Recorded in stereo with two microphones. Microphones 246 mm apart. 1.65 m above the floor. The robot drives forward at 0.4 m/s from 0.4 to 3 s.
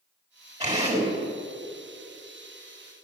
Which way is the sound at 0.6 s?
25° right (ahead or behind).